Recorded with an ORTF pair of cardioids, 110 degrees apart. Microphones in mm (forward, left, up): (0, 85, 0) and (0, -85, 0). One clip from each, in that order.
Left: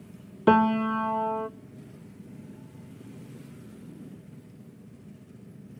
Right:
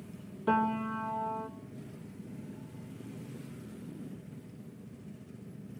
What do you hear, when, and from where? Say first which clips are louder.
0.5 s a piano: left 8 dB; 65° left, 0.8 m